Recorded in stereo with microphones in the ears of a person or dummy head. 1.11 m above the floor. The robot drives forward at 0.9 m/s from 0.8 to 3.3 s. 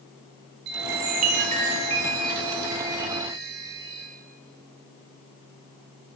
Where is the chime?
60° right (ahead or behind), 1.1 m; by 4.0 s 20° right (ahead or behind), 3 m.